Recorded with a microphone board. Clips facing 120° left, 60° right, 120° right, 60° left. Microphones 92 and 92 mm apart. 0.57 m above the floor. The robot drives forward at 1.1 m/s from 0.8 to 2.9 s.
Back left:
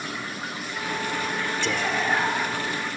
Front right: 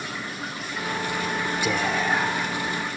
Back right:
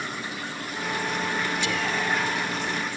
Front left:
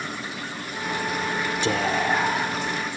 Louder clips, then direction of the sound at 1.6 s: Front right 1 dB, front left 4 dB; 20° left.